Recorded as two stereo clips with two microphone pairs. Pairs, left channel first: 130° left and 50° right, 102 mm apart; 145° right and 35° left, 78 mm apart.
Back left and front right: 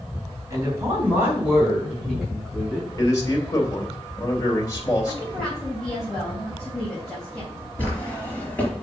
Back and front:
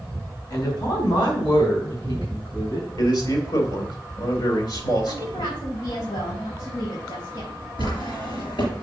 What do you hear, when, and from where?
0.5 s a woman speaking: 110° right, 3.5 m; by 2.9 s 145° right, 5.5 m
3.0 s a man speaking: 175° right, 3 m
5.1 s a woman speaking: 145° right, 4 m
7.8 s a drawer: 155° right, 4 m